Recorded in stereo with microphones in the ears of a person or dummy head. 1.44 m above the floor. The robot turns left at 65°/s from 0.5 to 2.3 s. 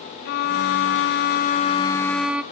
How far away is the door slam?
I don't hear a door slam.